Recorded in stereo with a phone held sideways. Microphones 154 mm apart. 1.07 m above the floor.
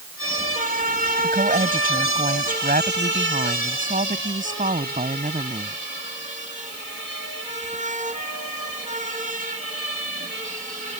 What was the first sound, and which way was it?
A woman speaking, 85° right.